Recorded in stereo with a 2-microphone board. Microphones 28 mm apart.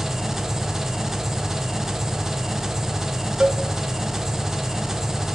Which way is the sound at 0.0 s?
15° right (ahead or behind).